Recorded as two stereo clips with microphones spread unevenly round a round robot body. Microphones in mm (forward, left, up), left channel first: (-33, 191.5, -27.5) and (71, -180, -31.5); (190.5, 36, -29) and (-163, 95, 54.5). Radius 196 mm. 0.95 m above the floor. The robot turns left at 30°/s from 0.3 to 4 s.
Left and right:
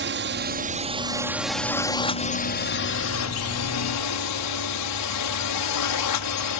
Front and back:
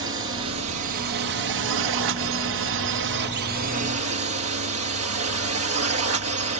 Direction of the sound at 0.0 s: 130° right.